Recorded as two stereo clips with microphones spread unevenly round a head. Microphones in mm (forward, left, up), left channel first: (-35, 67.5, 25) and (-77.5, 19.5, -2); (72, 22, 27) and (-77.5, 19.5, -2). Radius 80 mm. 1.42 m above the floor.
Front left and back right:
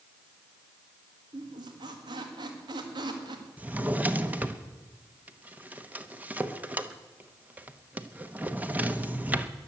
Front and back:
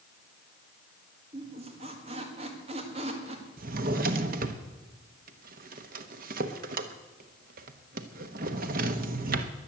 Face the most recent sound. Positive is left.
turn(degrees=150)